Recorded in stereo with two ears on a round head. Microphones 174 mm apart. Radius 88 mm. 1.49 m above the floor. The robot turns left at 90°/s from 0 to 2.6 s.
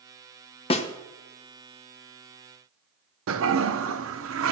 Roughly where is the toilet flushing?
Right.